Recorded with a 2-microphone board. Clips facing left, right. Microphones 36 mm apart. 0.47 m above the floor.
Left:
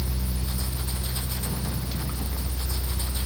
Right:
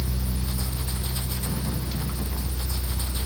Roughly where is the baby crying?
No baby crying in this recording.